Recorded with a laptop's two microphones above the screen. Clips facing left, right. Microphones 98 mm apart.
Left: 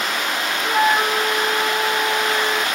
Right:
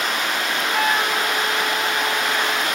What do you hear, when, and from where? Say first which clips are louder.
0.6 s a flute: left 5 dB; 25° left (ahead or behind), 0.8 m